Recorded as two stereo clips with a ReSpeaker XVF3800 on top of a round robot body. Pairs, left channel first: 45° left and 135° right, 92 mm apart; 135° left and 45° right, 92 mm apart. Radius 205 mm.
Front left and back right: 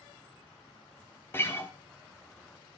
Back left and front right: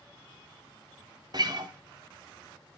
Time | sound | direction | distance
1.3 | a guitar | 15° right | 1.2 m